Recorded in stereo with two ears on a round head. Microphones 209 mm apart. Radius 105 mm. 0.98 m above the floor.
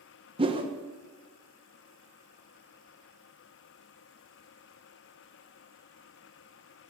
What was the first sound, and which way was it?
A whoosh, 25° right (ahead or behind).